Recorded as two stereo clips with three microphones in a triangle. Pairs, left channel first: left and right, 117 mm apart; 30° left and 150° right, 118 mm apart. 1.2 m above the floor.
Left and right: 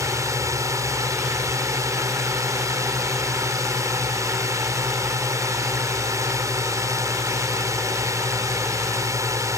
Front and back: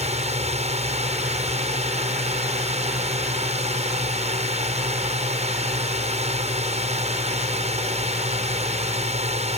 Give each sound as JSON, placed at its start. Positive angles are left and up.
{"t": 0.0, "sound": "a drone", "azimuth_deg": -150}